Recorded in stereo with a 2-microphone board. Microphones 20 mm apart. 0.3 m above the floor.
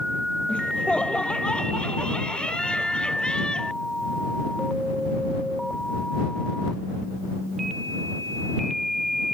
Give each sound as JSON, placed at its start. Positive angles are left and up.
{"t": 0.5, "sound": "laughter", "side_deg": 55}